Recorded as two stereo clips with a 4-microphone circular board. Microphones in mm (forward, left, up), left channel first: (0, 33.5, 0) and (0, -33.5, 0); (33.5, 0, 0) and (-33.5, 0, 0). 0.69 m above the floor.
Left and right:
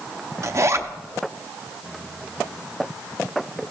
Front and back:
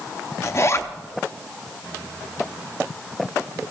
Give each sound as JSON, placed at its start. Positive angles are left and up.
{"t": 0.4, "sound": "a zipper", "azimuth_deg": -45, "distance_m": 0.6}